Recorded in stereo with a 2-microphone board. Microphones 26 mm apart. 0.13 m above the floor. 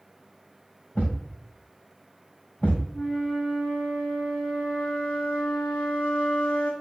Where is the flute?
75° left (ahead or behind), 3 m.